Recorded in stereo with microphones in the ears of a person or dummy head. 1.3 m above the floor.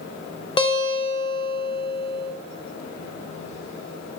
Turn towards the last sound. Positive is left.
turn(degrees=25)  # may be behind; listen again after turning